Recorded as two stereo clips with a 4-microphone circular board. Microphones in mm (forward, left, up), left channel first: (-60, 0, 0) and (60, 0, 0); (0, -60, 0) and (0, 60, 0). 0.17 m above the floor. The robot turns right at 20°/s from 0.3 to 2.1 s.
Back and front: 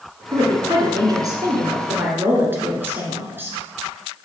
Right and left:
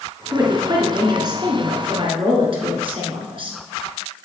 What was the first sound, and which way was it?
A woman speaking, 30° left.